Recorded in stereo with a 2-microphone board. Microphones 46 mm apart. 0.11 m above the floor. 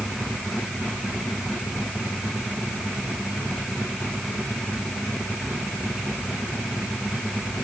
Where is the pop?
I don't hear a pop.